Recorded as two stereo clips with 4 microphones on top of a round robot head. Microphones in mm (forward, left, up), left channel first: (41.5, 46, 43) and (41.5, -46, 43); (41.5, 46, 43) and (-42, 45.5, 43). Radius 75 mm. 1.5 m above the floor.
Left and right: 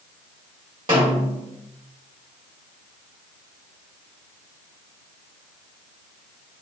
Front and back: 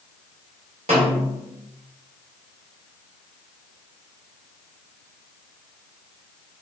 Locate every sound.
0.9 s a snare drum: 150° right, 1.9 m